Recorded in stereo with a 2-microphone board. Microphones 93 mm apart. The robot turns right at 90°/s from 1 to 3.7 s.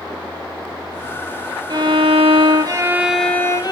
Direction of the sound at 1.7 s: 130° right.